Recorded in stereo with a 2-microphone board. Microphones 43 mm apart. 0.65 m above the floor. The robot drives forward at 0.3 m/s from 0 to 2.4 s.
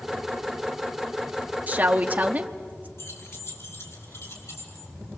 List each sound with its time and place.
1.7 s a woman speaking: 35° right (ahead or behind), 1.1 m
3.0 s keys jangling: 85° left, 5.5 m